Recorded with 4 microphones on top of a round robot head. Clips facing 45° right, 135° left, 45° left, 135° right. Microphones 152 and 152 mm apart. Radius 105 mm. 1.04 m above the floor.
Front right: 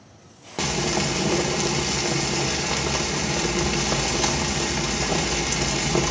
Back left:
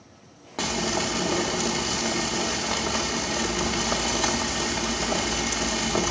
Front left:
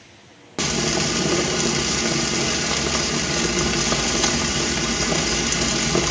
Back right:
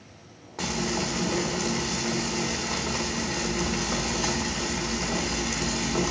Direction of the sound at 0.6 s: 25° left.